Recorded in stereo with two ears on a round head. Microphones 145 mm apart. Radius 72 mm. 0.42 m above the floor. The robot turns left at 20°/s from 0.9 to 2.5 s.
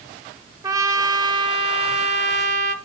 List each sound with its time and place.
0.6 s a trumpet: 25° right, 0.7 m; by 2.8 s 55° right, 0.7 m